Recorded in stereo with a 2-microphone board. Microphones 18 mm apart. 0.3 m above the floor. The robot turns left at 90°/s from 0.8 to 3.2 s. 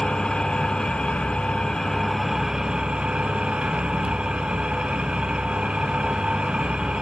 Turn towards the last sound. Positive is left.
turn(degrees=-90)